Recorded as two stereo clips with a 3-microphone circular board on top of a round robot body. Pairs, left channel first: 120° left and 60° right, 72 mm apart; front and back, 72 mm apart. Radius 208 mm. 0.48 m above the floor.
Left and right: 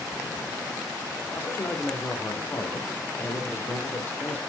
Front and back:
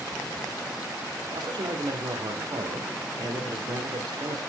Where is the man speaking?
Straight behind, 2 m.